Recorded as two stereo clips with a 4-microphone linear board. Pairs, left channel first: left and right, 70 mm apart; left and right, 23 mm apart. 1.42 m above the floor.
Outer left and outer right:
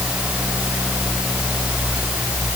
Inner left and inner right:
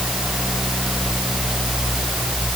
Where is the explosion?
No explosion in this recording.